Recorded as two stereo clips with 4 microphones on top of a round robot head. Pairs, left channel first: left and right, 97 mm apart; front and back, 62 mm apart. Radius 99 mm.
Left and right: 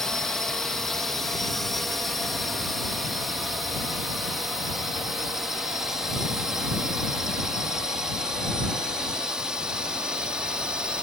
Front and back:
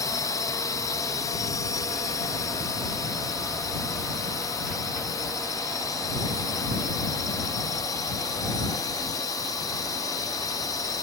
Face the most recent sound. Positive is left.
turn(degrees=-10)